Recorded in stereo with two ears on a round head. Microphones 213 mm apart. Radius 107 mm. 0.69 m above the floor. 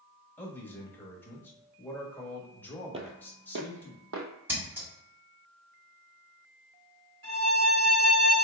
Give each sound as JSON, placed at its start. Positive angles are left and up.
{"t": 0.4, "sound": "a man speaking", "side_deg": 10, "distance_m": 1.3}
{"t": 2.9, "sound": "footsteps", "side_deg": -25, "distance_m": 0.7}
{"t": 4.5, "sound": "scissors", "side_deg": -10, "distance_m": 1.6}
{"t": 7.2, "sound": "a violin", "side_deg": -50, "distance_m": 1.6}